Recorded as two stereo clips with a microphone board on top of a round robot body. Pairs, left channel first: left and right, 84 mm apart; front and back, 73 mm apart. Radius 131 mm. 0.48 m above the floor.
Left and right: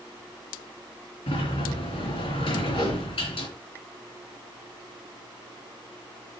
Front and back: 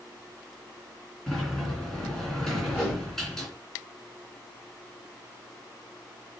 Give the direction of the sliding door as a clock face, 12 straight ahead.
9 o'clock.